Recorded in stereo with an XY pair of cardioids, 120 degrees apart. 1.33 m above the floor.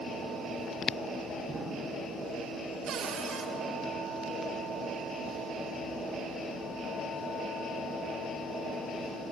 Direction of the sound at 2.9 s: 55° right.